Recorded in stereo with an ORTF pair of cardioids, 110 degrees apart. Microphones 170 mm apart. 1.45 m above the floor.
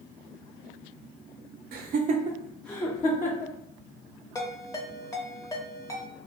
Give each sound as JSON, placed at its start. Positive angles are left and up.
{"t": 1.7, "sound": "laughter", "azimuth_deg": -65, "distance_m": 0.6}
{"t": 4.3, "sound": "a ringtone", "azimuth_deg": 20, "distance_m": 1.0}